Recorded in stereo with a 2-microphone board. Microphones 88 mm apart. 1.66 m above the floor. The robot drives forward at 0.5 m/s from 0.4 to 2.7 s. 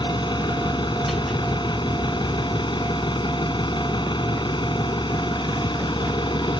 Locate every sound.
0.0 s an engine running: 65° left (ahead or behind); by 6.6 s 70° left (ahead or behind)